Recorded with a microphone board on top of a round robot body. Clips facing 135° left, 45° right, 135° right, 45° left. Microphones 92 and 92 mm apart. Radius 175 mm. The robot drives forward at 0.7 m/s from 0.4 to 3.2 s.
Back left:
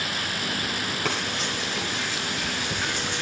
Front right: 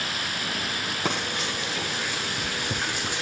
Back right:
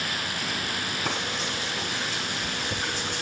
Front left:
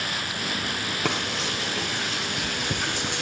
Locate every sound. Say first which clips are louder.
1.1 s frying: front right 2 dB, front left 4 dB; 25° left, 6 m; by 3.2 s 35° left, 4.5 m